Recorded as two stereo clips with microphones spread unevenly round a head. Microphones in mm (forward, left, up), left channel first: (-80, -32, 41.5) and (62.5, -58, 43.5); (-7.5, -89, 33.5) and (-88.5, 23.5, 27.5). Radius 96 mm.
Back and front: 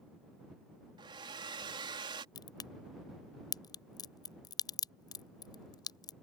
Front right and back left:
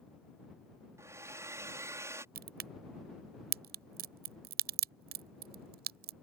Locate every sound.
1.0 s a hair dryer: 55° left
2.4 s a crack: 100° left